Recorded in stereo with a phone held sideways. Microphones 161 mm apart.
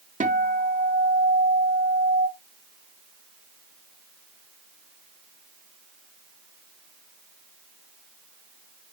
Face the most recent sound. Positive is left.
turn(degrees=-50)  # may be behind; listen again after turning